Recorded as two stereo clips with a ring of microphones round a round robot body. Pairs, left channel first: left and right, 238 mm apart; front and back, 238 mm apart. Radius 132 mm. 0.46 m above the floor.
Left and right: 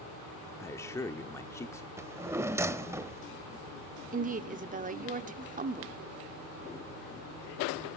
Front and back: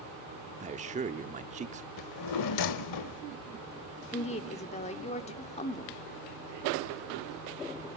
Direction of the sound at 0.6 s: 160° left.